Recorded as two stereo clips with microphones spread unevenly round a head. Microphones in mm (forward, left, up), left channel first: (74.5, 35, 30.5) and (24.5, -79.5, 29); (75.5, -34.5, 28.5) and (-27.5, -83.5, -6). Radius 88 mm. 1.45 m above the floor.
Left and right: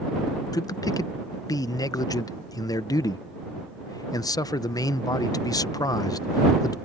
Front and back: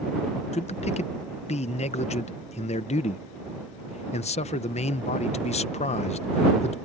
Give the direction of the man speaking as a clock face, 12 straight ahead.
12 o'clock.